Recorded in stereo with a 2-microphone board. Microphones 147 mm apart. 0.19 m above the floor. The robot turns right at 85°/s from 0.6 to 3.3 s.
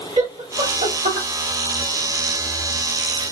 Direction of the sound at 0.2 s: 45° right (ahead or behind).